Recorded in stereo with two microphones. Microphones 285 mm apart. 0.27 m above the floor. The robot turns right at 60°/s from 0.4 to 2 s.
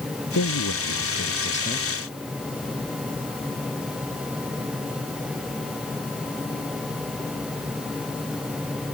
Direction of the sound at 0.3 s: 70° left.